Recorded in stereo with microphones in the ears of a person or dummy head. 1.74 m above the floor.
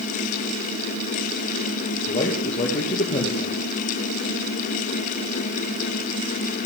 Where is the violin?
No violin in this recording.